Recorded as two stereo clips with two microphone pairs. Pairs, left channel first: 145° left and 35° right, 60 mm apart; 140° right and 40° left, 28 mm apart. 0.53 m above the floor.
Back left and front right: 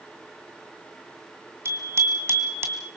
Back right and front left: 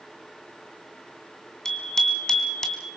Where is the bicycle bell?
70° right, 3 m; by 2.9 s 80° right, 2.5 m.